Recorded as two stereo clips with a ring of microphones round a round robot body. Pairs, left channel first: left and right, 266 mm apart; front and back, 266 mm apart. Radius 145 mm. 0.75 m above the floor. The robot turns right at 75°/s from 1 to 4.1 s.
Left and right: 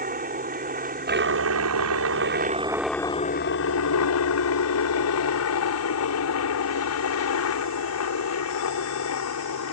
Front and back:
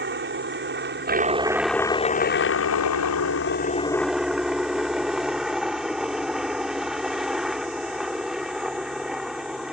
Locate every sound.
0.0 s a helicopter: 140° right; by 9.7 s 90° left